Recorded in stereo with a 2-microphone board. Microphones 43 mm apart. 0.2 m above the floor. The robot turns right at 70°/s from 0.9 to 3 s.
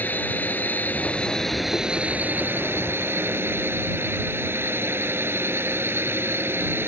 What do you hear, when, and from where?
0.0 s a drone: 135° left; by 6.9 s 80° right